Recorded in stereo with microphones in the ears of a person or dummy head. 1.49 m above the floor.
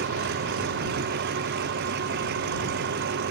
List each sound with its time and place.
0.0 s an engine running: 60° right (ahead or behind)